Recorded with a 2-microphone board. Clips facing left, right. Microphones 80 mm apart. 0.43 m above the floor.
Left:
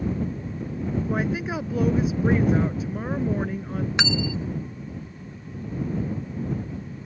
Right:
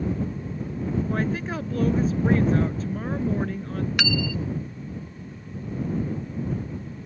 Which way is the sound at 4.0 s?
25° left (ahead or behind).